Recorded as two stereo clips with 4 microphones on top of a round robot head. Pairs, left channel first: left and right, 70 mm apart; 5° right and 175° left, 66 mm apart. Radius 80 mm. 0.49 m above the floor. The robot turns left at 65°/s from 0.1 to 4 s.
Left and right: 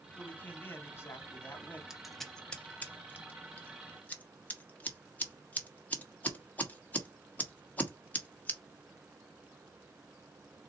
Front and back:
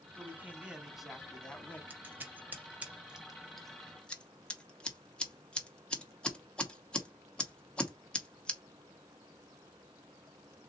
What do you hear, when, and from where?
0.2 s a man speaking: 150° left, 1.3 m; by 1.8 s 40° left, 1.3 m
1.9 s scissors: 170° right, 1.4 m; by 8.6 s 55° left, 1.4 m